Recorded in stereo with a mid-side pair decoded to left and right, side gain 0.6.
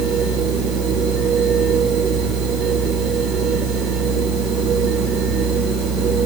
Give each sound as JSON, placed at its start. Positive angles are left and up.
{"t": 0.0, "sound": "a machine running", "azimuth_deg": -60, "distance_m": 3.0}